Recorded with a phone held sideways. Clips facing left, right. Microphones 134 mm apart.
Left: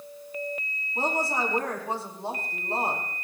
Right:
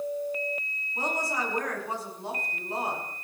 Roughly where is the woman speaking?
Left.